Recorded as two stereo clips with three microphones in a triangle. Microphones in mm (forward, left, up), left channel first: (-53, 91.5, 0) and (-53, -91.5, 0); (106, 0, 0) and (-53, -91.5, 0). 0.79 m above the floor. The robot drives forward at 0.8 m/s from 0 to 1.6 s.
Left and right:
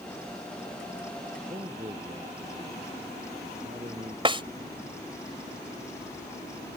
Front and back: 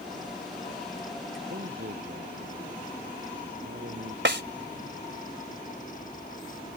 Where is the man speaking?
150° right.